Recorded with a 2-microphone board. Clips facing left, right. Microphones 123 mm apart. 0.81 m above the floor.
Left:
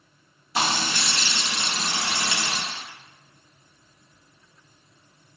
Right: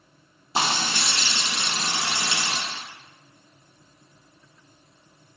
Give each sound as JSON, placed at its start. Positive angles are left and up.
{"t": 0.6, "sound": "frying", "side_deg": -30, "distance_m": 0.6}